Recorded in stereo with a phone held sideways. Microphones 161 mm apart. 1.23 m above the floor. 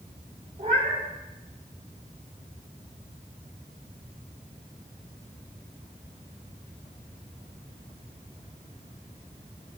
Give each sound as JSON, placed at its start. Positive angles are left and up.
{"t": 0.6, "sound": "a cat meowing", "side_deg": -45, "distance_m": 4.5}